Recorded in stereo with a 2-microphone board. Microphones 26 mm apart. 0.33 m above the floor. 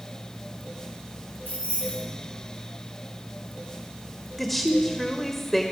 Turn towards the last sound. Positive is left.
turn(degrees=0)  # may be behind; listen again after turning